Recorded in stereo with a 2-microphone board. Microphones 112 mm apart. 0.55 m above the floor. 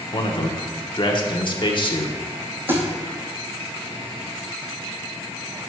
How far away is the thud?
About 2.5 m.